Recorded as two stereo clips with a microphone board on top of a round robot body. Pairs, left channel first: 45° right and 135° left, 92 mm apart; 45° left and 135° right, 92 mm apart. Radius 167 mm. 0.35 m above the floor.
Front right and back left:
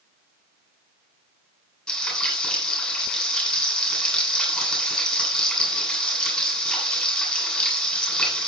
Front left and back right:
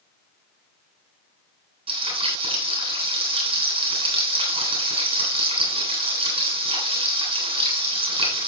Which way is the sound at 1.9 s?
130° right.